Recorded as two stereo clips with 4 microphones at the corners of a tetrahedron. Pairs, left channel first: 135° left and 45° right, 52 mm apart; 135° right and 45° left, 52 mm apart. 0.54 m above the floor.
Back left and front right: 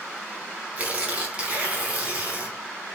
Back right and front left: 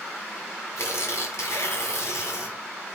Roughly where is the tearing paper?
Right.